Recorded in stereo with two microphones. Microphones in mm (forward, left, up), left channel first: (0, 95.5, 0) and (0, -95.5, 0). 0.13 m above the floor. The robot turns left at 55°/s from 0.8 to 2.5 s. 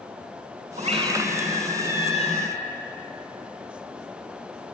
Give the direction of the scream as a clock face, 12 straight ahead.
5 o'clock.